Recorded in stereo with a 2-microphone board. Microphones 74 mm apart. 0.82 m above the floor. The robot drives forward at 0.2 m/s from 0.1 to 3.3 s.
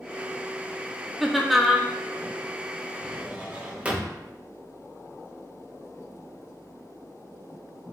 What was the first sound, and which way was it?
Laughter, centre (ahead or behind).